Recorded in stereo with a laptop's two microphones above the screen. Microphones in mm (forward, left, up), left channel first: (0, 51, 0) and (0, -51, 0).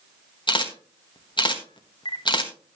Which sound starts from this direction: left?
A camera shutter, at 0.5 s.